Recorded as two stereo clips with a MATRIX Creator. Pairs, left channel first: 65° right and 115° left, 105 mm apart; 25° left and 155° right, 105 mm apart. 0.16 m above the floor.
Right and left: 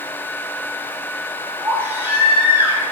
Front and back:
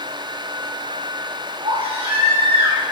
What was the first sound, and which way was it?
A baby crying, straight behind.